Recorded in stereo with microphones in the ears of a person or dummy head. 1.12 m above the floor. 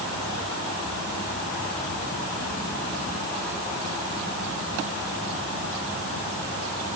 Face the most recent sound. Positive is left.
No sound to turn to.